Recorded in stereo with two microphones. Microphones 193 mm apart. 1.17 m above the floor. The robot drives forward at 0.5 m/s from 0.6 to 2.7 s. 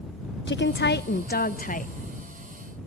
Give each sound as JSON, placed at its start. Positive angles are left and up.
{"t": 0.5, "sound": "a woman speaking", "side_deg": 70, "distance_m": 0.8}